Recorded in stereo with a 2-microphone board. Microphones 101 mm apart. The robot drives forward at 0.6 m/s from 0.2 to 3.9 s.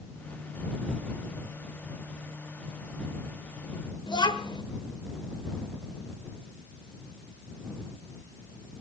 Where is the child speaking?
50° left (ahead or behind), 1.1 m.